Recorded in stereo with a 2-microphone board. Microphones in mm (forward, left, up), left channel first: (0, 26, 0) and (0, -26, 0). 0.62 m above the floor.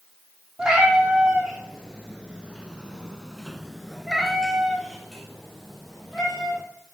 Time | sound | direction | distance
0.6 | a cat meowing | 15° right (ahead or behind) | 2 m